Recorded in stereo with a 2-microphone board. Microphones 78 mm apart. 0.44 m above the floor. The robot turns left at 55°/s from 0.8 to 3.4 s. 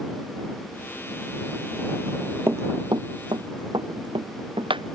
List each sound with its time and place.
2.5 s running footsteps: 30° right (ahead or behind); by 4.8 s 85° right